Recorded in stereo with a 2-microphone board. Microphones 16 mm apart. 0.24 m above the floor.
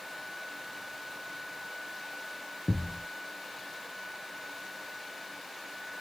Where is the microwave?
No microwave in this recording.